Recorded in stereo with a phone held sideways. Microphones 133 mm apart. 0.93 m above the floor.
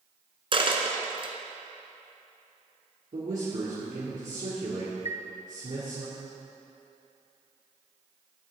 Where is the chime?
55° left (ahead or behind), 0.6 m.